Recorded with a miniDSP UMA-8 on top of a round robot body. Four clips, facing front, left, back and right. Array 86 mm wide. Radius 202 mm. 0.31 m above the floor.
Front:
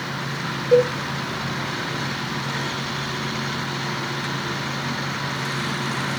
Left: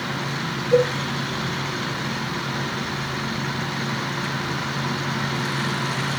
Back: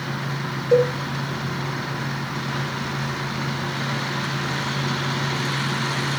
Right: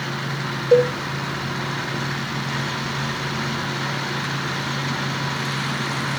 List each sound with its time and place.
0.7 s a cowbell: 95° right, 1.0 m